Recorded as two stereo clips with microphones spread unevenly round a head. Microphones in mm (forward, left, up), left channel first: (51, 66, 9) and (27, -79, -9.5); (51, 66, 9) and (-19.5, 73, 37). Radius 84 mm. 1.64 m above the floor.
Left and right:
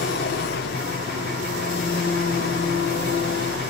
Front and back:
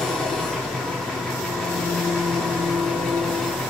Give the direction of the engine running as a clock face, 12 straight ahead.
9 o'clock.